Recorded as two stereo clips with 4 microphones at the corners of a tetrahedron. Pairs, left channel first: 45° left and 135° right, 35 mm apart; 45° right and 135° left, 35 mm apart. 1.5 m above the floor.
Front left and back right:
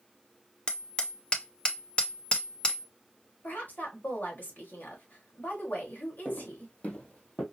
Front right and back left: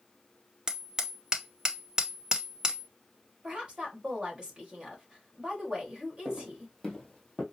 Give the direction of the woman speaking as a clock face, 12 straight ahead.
10 o'clock.